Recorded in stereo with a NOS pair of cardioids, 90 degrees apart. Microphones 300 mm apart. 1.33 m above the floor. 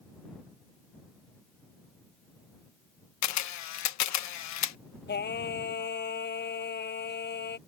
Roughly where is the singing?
Ahead left.